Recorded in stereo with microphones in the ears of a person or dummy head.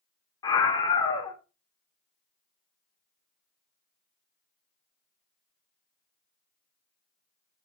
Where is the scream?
30° left (ahead or behind), 0.5 m.